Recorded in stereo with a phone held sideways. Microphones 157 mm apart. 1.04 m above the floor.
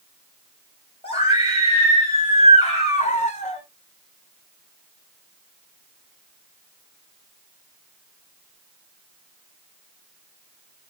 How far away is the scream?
About 5 m.